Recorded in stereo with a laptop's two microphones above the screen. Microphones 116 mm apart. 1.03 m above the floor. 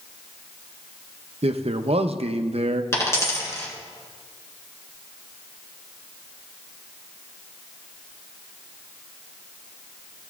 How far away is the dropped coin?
About 1.8 m.